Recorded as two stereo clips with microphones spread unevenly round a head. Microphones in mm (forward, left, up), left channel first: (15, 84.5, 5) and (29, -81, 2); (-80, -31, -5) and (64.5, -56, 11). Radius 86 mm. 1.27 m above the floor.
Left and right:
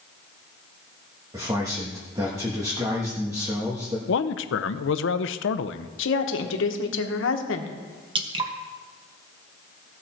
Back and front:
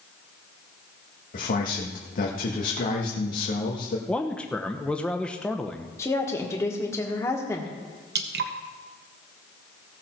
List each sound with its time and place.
1.3 s a man speaking: 160° right, 1.4 m
4.1 s a man speaking: 85° left, 0.7 m
6.0 s a woman speaking: 95° left, 1.4 m
8.2 s dripping: 25° right, 1.3 m